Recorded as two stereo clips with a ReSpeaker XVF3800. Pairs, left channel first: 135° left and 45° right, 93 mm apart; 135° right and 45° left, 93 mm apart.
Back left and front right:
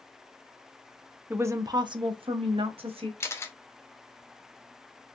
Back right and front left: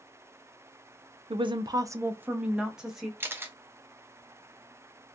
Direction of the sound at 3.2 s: 95° left.